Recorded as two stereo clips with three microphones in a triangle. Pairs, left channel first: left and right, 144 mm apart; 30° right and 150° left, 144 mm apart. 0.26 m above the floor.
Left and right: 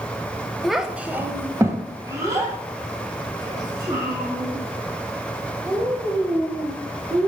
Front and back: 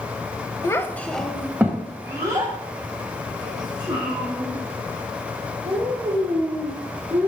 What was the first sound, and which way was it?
A child speaking, straight ahead.